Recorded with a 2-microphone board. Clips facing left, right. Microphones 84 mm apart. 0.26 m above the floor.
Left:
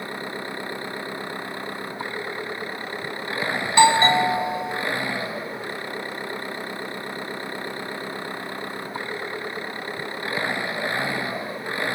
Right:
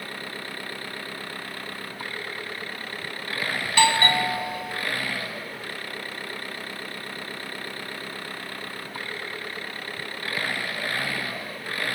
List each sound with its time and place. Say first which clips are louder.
0.0 s an engine running: left 5 dB; 20° left (ahead or behind)
3.6 s a doorbell: left 5 dB; 20° left (ahead or behind)